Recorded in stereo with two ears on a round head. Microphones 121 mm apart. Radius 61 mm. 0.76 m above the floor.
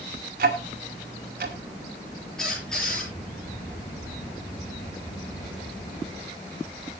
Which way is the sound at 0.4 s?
70° right (ahead or behind).